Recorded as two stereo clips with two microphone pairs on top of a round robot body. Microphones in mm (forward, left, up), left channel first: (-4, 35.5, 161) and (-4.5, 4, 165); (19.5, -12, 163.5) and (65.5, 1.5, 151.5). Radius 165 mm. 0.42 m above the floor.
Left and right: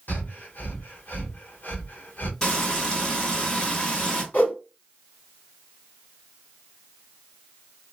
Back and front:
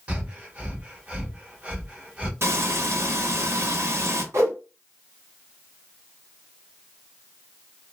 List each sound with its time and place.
0.1 s breathing: 70° left, 1.2 m
2.4 s frying: 30° left, 1.4 m
4.3 s a whoosh: 45° left, 1.4 m